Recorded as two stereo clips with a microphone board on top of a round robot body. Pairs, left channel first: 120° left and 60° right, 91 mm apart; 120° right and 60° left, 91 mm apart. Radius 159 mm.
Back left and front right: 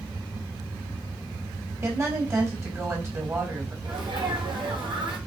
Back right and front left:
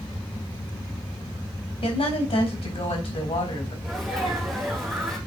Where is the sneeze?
35° right, 3.5 m.